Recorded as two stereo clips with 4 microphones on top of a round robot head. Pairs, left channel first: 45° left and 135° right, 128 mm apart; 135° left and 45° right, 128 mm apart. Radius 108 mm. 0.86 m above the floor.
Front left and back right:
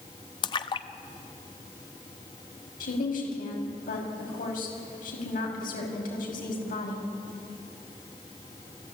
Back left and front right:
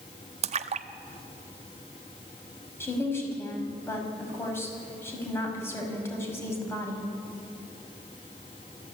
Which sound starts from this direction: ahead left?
A woman speaking, at 2.8 s.